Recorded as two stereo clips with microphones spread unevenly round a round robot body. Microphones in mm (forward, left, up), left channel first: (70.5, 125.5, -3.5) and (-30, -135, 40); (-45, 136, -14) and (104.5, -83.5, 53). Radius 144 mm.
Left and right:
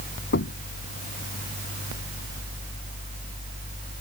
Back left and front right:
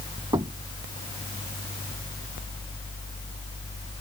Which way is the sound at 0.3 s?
20° left.